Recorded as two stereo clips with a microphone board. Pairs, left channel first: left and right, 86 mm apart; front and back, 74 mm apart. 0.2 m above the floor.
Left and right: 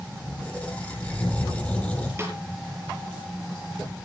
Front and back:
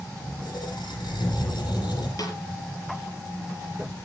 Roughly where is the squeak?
Ahead.